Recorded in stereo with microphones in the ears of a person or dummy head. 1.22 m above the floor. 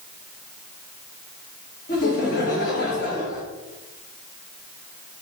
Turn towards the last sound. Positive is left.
turn(degrees=50)  # may be behind; listen again after turning